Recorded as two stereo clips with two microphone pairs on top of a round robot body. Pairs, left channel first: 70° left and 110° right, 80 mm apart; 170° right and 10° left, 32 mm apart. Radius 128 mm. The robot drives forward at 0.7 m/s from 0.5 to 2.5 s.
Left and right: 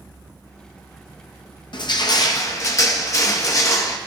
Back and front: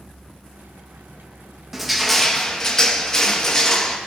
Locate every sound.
1.7 s crushing: 95° left, 1.0 m; by 4.0 s 120° left, 1.2 m